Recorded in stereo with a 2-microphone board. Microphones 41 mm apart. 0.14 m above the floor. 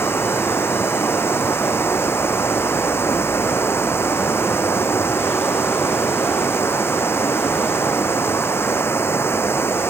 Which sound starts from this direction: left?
Running water, at 0.0 s.